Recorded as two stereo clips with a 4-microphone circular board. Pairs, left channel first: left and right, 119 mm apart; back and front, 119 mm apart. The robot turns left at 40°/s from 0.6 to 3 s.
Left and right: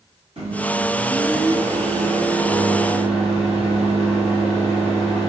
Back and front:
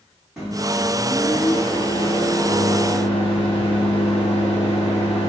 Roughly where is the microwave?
Right.